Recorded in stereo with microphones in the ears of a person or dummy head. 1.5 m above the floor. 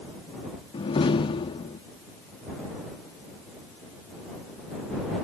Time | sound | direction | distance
0.7 | a door slam | 30° left (ahead or behind) | ?